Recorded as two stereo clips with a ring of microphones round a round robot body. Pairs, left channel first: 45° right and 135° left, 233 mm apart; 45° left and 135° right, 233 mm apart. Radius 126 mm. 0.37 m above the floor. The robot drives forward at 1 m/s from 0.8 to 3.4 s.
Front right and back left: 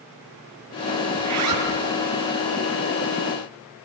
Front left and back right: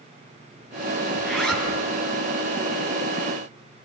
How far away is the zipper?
About 7.5 m.